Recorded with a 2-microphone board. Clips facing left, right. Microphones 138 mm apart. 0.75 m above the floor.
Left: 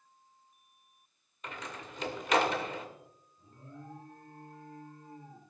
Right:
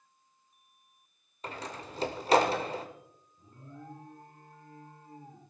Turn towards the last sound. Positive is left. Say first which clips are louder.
# right 1 dB
turn(degrees=-20)  # may be behind; listen again after turning